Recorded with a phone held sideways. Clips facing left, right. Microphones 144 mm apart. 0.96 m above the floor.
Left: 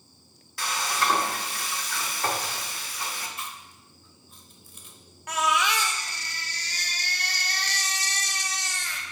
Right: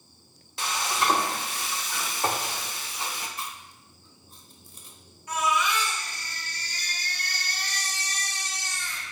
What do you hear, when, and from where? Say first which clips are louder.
0.6 s frying: even; 20° right (ahead or behind), 0.8 m
3.4 s chewing: right 1 dB; 35° right (ahead or behind), 0.9 m
5.3 s a baby crying: left 1 dB; 75° left (ahead or behind), 0.7 m